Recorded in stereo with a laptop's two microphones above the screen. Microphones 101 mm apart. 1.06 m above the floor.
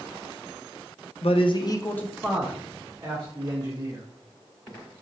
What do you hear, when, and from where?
1.2 s a man speaking: 70° left (ahead or behind), 0.7 m; by 4.0 s 35° right (ahead or behind), 1.9 m